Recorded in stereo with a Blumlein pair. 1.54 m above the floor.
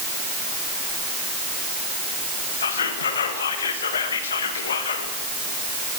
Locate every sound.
2.6 s whispering: 65° left, 1.9 m